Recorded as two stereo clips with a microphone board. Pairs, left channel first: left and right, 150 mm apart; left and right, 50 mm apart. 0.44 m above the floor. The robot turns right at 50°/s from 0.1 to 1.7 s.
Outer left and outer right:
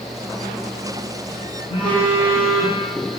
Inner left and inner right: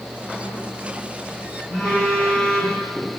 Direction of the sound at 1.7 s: 25° right (ahead or behind).